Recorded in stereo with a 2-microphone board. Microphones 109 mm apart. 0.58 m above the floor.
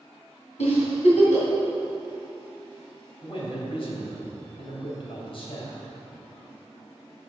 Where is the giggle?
80° left, 3 m.